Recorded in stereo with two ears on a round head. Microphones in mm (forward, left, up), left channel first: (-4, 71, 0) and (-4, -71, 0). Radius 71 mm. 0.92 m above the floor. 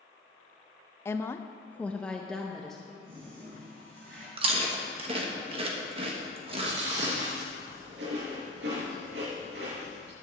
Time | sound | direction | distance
1.1 | a woman speaking | 15° left (ahead or behind) | 0.5 m
3.0 | a toilet flushing | 80° right | 4.5 m
4.4 | chewing | 35° right (ahead or behind) | 1.4 m
6.5 | chewing | 80° right | 4.5 m